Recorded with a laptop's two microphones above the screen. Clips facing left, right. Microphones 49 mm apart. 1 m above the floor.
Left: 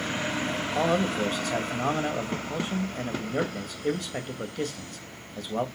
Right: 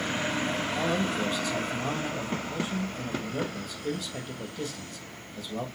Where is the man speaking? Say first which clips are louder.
Left 6 dB; 60° left (ahead or behind), 1.6 m.